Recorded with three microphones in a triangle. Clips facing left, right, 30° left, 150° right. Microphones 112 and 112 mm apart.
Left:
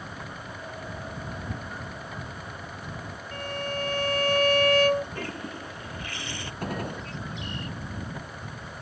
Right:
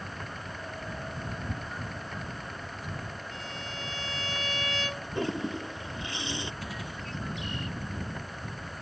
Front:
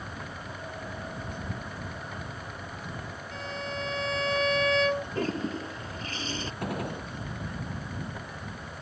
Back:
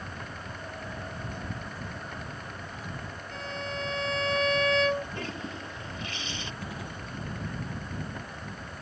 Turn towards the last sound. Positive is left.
turn(degrees=55)